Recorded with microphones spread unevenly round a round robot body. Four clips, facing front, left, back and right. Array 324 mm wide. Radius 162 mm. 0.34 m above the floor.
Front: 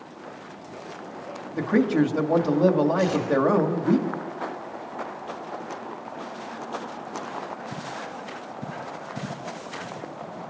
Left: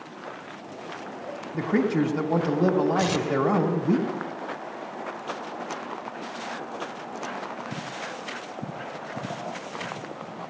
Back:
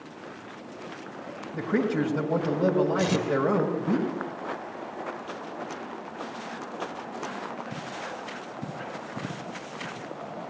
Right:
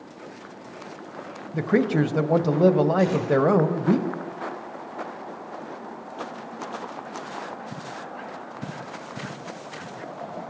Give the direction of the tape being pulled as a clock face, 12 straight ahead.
6 o'clock.